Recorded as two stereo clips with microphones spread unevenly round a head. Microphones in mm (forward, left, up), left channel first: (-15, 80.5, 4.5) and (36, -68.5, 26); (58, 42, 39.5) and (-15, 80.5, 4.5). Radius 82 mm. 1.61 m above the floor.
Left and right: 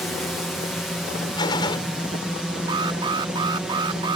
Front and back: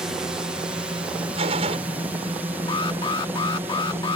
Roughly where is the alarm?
Ahead.